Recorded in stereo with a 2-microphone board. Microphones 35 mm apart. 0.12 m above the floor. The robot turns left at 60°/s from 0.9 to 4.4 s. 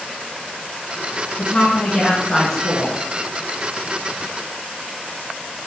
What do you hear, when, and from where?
1.4 s a woman speaking: 25° left (ahead or behind), 1.1 m; by 3.0 s 5° right (ahead or behind), 1.1 m